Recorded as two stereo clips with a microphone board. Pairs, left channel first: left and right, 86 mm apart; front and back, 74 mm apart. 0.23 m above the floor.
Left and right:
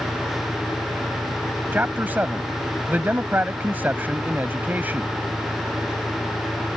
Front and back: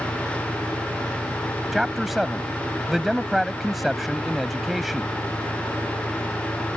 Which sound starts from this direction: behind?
An engine running, at 0.0 s.